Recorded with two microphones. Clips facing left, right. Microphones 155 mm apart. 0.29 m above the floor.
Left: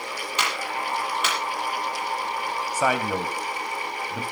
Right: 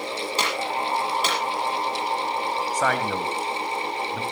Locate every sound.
0.4 s a clap: 35° right (ahead or behind), 6 m
2.7 s a man speaking: 10° left (ahead or behind), 2 m